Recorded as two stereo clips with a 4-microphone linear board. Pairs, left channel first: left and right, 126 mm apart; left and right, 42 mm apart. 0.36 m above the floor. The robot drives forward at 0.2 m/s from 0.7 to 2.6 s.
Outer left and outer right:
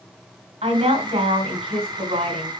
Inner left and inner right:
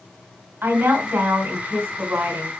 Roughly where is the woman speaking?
Right.